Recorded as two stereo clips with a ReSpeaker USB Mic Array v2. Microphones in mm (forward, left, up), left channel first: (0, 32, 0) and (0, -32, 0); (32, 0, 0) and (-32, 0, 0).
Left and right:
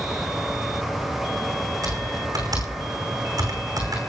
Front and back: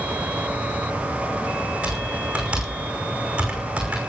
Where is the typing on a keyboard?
110° right, 5.5 m.